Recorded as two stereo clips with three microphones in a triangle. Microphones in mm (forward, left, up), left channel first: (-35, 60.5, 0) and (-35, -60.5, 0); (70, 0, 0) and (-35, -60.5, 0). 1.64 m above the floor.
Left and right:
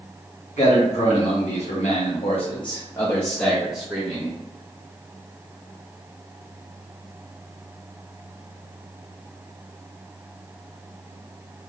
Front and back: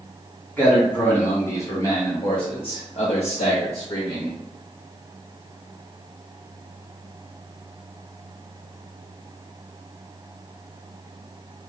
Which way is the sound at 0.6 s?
105° left.